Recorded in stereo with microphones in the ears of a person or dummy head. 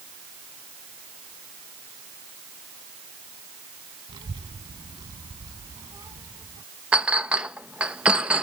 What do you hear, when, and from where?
4.1 s a child speaking: 25° right (ahead or behind); by 6.6 s 15° right (ahead or behind)
6.9 s a clink: 5° right (ahead or behind)